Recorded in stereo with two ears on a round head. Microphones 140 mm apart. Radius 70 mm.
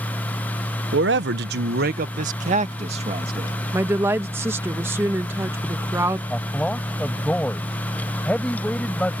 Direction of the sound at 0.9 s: 75° right (ahead or behind).